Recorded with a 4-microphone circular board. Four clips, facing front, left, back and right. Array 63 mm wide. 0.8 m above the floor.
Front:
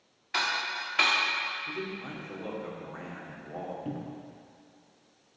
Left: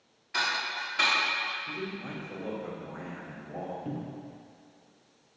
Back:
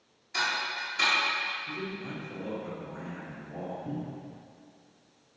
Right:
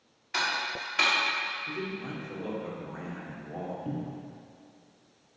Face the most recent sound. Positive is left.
turn(degrees=10)